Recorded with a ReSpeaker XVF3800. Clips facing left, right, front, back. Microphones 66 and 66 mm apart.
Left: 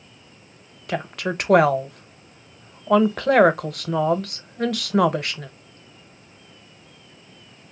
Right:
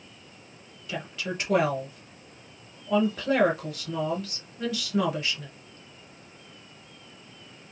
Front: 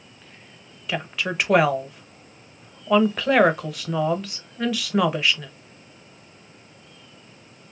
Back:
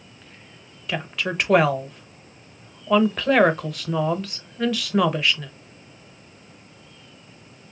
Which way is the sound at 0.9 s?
85° left.